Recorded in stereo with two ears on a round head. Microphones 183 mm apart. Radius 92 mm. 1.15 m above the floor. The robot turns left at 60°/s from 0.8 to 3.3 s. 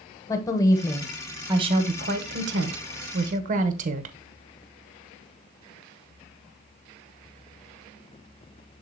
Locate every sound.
0.3 s a woman speaking: 20° left, 1.0 m; by 4.2 s 130° right, 1.0 m